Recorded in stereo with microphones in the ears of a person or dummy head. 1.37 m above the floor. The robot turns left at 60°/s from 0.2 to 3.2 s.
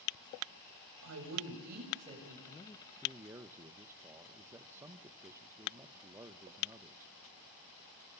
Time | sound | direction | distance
1.0 | a woman speaking | 90° right | 7.5 m
2.5 | a man speaking | 30° left | 1.0 m